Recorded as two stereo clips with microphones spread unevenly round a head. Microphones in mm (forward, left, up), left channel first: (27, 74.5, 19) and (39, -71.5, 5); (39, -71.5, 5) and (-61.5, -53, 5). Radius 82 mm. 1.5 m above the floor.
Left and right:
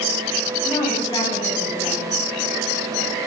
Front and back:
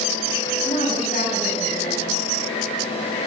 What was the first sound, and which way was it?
A woman speaking, 30° left.